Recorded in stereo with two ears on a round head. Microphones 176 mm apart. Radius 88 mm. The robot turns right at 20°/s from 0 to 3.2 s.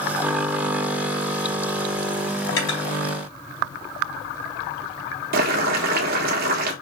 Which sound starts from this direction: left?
Cutlery clinking, at 2.5 s.